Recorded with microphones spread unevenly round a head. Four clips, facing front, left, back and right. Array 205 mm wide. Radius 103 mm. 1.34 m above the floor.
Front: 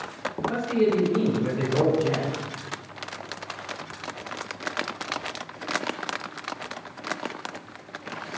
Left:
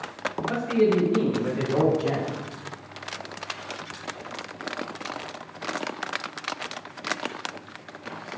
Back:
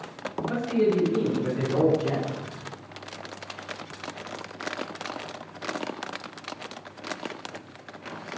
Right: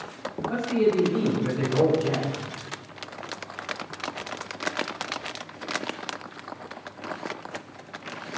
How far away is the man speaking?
About 7.5 m.